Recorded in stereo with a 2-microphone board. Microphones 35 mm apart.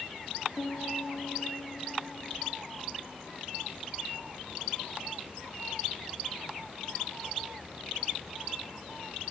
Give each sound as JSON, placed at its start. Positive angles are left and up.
{"t": 0.6, "sound": "a piano", "side_deg": 35, "distance_m": 6.5}